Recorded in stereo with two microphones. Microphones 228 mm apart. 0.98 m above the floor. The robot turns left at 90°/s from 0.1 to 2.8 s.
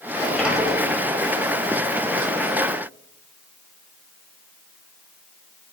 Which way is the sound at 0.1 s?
20° left.